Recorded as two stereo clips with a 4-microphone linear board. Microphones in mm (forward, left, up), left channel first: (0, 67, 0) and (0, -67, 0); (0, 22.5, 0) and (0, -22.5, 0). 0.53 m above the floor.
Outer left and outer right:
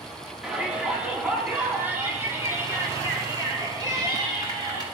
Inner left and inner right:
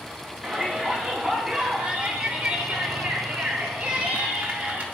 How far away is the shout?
About 3.5 m.